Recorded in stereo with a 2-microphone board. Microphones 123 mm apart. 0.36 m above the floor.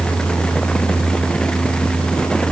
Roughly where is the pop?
No pop in this recording.